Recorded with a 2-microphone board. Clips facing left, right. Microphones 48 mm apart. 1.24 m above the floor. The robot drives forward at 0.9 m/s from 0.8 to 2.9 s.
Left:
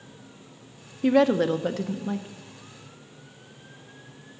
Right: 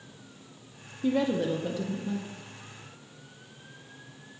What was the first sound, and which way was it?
A woman speaking, 75° left (ahead or behind).